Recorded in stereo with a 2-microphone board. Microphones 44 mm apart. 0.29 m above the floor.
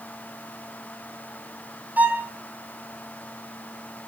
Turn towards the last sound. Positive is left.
turn(degrees=-40)  # may be behind; listen again after turning